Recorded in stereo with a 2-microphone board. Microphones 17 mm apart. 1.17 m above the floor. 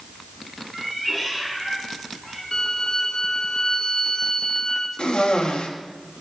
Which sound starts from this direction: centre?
A cat meowing, at 0.7 s.